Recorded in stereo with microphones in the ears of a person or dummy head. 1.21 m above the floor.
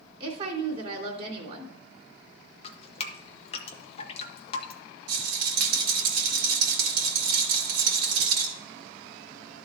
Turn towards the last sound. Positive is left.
turn(degrees=-65)  # may be behind; listen again after turning